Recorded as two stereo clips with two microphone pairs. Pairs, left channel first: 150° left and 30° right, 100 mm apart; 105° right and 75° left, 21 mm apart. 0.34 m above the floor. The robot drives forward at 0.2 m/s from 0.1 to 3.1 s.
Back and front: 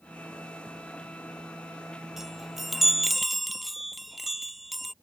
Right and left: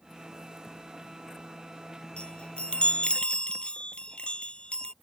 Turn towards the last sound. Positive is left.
turn(degrees=-120)